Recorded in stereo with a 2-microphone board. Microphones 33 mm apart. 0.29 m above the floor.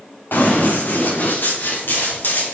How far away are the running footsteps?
About 4 m.